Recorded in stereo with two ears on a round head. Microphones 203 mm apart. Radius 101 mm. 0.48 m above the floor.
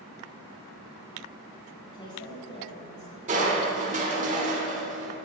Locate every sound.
1.9 s a woman speaking: 15° left (ahead or behind), 2 m; by 3.2 s 35° left (ahead or behind), 1.8 m
3.3 s crushing: 35° right (ahead or behind), 1.4 m